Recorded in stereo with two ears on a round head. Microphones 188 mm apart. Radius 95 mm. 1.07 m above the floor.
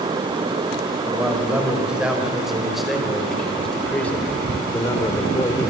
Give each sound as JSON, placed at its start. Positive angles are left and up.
{"t": 1.1, "sound": "a man speaking", "side_deg": -5, "distance_m": 5.0}